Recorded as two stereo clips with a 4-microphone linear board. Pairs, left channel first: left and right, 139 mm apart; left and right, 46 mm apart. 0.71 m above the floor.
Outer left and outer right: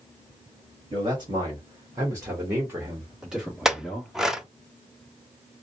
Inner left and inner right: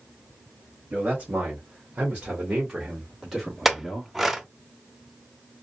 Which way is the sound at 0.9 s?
35° right (ahead or behind).